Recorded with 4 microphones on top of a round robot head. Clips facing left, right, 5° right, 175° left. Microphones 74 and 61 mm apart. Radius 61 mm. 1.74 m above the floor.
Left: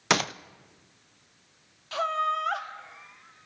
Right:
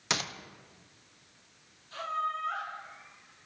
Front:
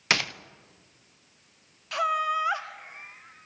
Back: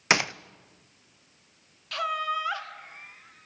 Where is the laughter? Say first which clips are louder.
Left 6 dB, front 3 dB; 60° left, 2.0 m.